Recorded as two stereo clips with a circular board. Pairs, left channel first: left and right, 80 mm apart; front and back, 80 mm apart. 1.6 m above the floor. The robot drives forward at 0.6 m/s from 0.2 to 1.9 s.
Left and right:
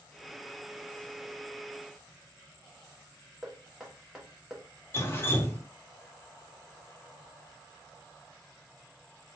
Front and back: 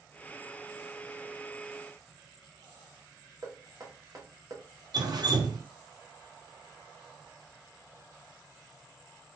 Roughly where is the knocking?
Behind.